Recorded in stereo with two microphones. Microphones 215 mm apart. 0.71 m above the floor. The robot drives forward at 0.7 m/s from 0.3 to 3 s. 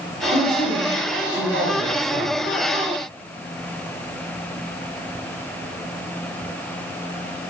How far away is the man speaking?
About 4 m.